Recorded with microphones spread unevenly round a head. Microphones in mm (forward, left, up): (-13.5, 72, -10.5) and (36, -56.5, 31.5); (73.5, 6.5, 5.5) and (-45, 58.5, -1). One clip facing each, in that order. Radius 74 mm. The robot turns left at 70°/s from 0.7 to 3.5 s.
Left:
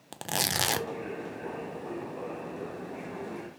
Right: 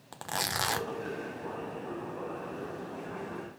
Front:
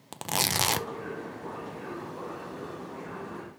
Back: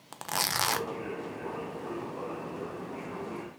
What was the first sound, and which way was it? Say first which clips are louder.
Tearing paper: left 2 dB, front 2 dB; 40° left.